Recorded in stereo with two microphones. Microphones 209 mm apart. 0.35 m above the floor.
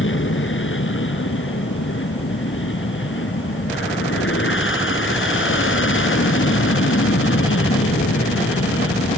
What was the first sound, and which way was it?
An aircraft, 70° left (ahead or behind).